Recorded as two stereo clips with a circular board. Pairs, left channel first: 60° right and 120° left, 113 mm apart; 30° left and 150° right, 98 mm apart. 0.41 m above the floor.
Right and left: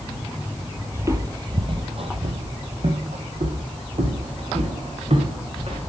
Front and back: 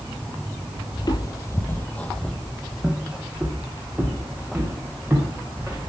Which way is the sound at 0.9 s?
55° left.